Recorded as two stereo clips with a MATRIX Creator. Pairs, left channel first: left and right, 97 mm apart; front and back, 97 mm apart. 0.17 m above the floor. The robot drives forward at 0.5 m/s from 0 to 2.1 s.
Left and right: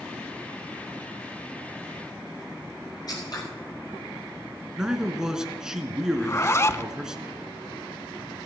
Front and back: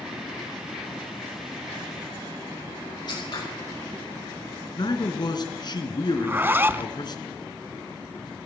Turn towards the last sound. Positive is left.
turn(degrees=130)